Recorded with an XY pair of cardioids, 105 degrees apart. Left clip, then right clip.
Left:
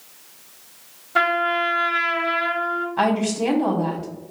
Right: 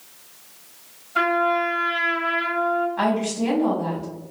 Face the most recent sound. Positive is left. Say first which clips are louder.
# left 2 dB
turn(degrees=55)